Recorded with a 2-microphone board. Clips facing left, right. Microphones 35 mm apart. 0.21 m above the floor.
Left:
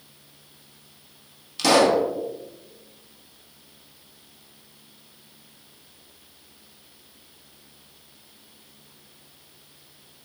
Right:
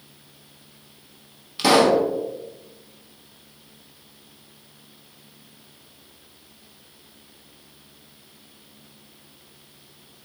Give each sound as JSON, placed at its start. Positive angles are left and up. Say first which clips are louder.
{"t": 1.6, "sound": "a pop", "louder": "right 1 dB", "side_deg": -15, "distance_m": 0.6}